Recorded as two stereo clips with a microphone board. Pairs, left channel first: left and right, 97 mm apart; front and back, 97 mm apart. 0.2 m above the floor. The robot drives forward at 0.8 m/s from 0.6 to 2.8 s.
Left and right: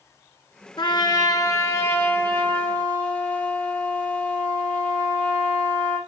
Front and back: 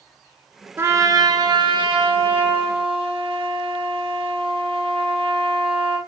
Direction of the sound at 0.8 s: 115° left.